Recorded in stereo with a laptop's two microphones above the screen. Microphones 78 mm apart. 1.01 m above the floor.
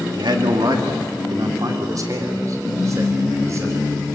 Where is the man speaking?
70° right (ahead or behind), 2 m; by 4.0 s 35° right (ahead or behind), 6.5 m.